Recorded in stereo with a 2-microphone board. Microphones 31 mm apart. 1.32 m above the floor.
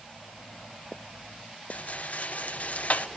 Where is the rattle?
55° left (ahead or behind), 1.0 m.